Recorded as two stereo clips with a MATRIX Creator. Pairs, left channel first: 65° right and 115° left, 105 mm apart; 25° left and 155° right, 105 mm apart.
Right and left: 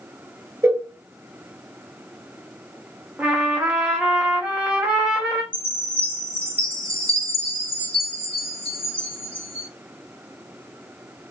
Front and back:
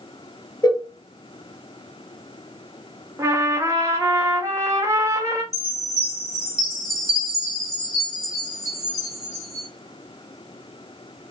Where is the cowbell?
55° left, 0.5 m.